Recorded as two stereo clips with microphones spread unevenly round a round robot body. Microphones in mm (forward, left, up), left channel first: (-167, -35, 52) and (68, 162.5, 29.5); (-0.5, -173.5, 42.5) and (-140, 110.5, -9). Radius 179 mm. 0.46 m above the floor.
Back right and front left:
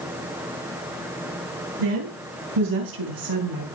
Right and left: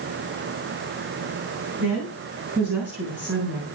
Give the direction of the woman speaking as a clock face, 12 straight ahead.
11 o'clock.